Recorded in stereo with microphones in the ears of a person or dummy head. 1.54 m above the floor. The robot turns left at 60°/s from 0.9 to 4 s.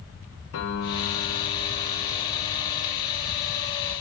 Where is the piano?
90° left, 1.6 m; by 3.6 s 70° right, 1.6 m.